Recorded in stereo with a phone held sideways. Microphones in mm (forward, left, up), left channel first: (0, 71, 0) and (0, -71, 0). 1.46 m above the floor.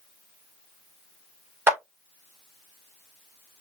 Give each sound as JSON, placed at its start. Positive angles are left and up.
{"t": 1.7, "sound": "a clap", "side_deg": -15, "distance_m": 2.0}